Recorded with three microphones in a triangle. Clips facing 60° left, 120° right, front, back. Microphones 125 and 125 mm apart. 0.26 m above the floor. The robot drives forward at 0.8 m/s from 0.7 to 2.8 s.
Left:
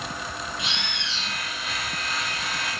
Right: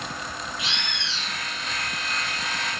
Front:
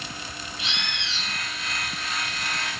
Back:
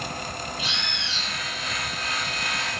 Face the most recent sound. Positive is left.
turn(degrees=140)